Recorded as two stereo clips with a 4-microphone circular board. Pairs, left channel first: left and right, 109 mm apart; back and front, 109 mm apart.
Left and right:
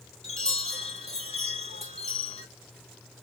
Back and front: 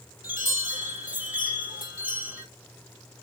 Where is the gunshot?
I don't hear a gunshot.